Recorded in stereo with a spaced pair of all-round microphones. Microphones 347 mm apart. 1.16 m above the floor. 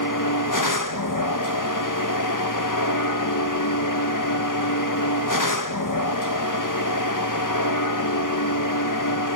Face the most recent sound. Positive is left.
turn(degrees=70)  # may be behind; listen again after turning